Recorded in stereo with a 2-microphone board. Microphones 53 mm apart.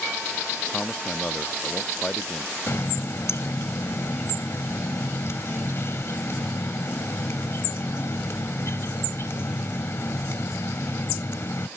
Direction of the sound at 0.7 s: 20° left (ahead or behind).